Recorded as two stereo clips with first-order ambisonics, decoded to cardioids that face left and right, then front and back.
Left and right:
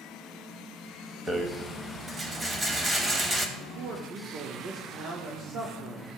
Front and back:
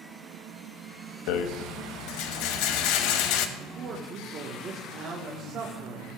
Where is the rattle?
15° right, 0.8 m.